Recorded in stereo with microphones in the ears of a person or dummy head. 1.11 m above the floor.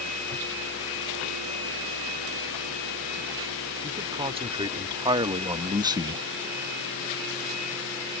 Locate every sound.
3.8 s a man speaking: 20° right (ahead or behind); by 6.2 s 10° right (ahead or behind)